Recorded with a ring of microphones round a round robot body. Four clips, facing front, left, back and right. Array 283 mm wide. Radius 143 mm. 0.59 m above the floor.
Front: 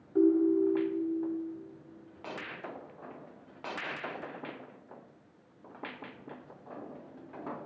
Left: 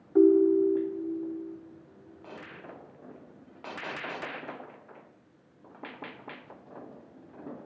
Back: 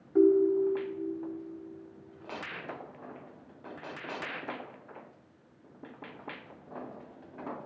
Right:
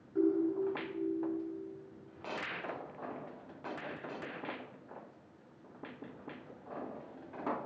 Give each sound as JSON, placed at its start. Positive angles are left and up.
{"t": 0.1, "sound": "a ringtone", "azimuth_deg": 110, "distance_m": 1.2}